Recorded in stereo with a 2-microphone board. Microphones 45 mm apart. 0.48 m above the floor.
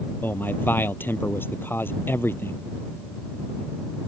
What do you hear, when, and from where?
0.2 s a man speaking: 45° left (ahead or behind); by 2.6 s 55° left (ahead or behind)